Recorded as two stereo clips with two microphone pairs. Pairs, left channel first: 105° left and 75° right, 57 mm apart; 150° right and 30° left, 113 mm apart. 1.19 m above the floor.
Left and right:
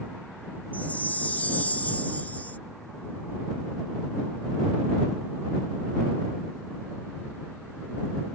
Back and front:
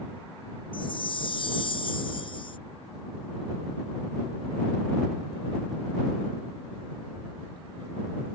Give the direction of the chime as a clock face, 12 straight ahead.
6 o'clock.